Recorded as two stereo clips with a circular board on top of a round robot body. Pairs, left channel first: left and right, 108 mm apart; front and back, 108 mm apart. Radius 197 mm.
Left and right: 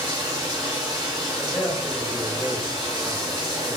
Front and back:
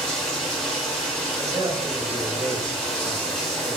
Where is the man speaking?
170° left, 1.1 m.